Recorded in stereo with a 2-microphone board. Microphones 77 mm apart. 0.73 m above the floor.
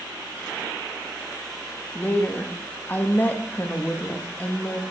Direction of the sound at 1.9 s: 25° left (ahead or behind).